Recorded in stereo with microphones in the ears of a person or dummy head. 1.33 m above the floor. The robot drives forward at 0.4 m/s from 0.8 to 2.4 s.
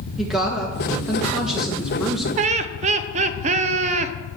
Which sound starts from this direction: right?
Laughter, at 2.4 s.